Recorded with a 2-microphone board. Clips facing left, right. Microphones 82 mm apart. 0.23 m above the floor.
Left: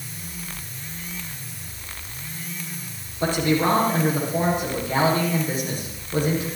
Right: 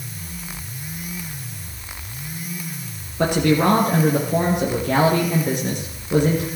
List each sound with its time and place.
3.2 s a man speaking: 70° right (ahead or behind), 3.5 m